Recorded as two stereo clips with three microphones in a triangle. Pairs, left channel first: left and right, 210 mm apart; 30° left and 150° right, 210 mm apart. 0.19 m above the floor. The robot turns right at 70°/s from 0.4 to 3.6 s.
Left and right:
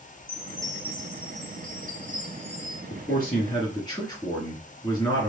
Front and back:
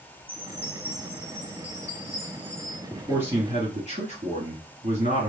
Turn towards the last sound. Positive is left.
turn(degrees=160)